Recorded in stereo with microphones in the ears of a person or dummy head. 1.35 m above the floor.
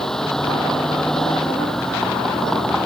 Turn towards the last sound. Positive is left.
turn(degrees=5)  # may be behind; listen again after turning